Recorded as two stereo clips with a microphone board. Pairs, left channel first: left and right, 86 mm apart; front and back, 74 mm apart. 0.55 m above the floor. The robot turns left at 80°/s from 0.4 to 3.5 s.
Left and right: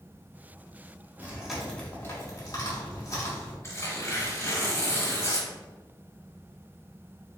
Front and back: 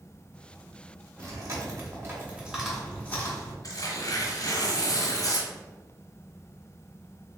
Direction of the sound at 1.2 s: 150° right.